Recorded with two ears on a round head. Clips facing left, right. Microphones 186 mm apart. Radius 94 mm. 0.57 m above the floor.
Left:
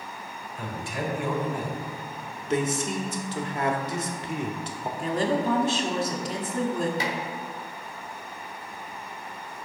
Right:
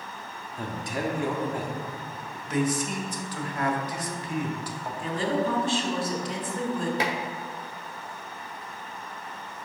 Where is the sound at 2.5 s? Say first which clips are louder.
Even; 20° left (ahead or behind), 0.9 m.